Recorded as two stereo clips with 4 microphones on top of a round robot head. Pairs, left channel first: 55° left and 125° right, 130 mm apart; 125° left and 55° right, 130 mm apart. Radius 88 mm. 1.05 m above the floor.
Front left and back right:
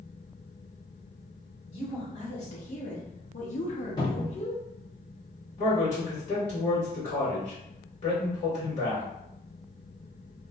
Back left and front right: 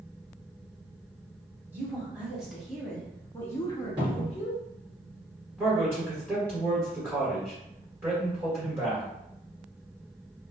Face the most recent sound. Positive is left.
turn(degrees=15)